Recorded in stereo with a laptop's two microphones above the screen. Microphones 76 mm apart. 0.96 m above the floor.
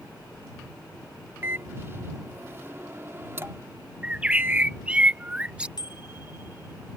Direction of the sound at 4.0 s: 15° right (ahead or behind).